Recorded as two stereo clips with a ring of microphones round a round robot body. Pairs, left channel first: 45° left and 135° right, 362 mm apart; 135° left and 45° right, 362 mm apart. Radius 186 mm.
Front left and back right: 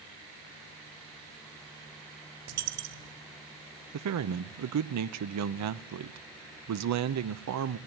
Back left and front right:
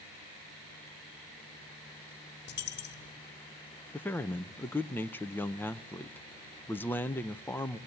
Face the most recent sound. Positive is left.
turn(degrees=-145)